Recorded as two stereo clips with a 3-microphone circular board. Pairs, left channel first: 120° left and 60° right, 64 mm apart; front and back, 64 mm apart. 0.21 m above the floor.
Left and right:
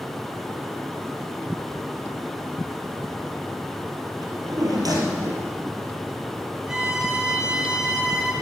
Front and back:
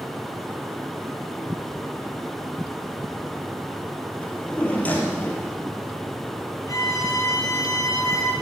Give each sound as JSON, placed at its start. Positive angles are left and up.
{"t": 4.2, "sound": "a drawer", "azimuth_deg": -65, "distance_m": 2.5}
{"t": 6.7, "sound": "a violin", "azimuth_deg": 20, "distance_m": 2.5}